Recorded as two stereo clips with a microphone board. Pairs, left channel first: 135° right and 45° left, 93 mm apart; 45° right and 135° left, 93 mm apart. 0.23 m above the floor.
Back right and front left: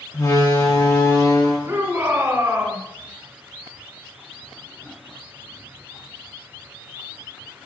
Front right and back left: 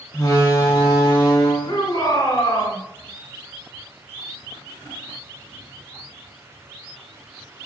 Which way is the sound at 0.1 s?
95° right.